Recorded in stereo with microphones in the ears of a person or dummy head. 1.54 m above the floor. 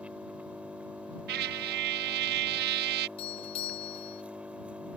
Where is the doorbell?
35° left (ahead or behind).